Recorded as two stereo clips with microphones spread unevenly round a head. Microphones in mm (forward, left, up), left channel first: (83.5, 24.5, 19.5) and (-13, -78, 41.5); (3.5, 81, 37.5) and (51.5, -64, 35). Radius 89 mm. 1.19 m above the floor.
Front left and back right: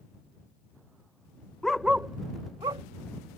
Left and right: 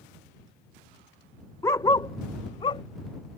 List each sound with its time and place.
1.6 s a dog barking: 155° left; by 2.8 s 170° left